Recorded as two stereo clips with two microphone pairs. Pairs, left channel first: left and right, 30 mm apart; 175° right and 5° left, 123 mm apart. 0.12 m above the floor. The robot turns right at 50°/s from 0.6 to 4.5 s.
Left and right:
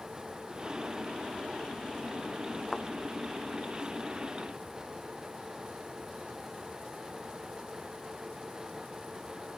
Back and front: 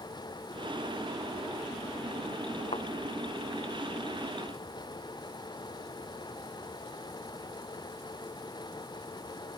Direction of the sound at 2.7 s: 155° left.